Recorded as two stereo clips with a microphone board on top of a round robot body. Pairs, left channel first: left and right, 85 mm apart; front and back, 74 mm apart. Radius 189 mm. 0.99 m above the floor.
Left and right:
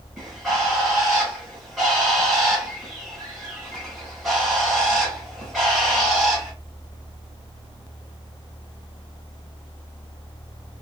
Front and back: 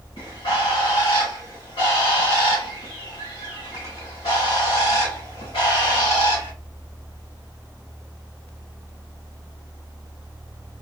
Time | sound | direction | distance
0.2 | a bird | 5° right | 1.2 m